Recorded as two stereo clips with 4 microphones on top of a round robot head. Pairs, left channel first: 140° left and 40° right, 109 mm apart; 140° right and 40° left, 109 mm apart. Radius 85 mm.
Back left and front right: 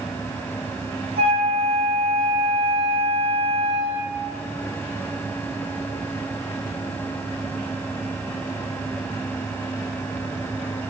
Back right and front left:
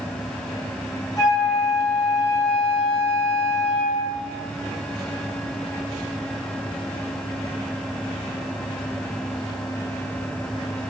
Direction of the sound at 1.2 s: 80° right.